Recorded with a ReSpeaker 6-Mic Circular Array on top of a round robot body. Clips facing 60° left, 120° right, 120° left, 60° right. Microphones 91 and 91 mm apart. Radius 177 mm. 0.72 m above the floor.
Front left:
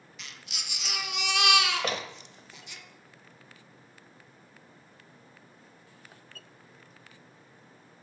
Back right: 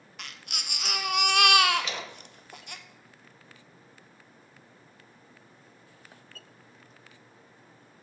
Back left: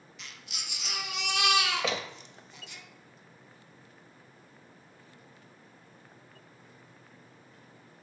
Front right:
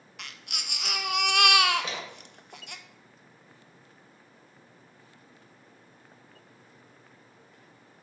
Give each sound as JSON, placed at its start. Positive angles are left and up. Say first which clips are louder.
{"t": 0.2, "sound": "a baby crying", "louder": "back right 4 dB, front right 5 dB", "azimuth_deg": -85, "distance_m": 0.7}
{"t": 1.8, "sound": "a door slam", "louder": "front left 1 dB, back left 1 dB", "azimuth_deg": 110, "distance_m": 0.7}